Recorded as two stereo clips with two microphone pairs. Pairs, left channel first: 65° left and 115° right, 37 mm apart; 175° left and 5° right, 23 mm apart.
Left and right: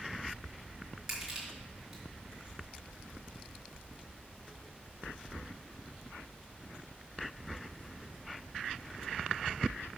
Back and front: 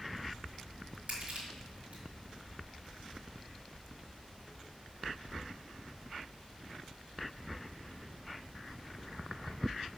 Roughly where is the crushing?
Ahead right.